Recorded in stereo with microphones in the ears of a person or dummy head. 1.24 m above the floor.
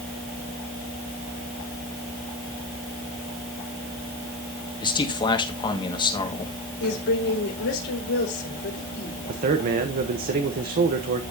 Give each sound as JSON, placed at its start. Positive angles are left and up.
{"t": 4.8, "sound": "a man speaking", "side_deg": 25, "distance_m": 1.7}
{"t": 6.8, "sound": "a woman speaking", "side_deg": 65, "distance_m": 4.0}
{"t": 9.3, "sound": "a man speaking", "side_deg": -40, "distance_m": 0.9}